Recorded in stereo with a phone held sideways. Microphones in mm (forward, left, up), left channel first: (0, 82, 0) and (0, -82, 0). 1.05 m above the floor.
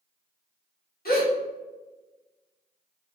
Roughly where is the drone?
I don't hear a drone.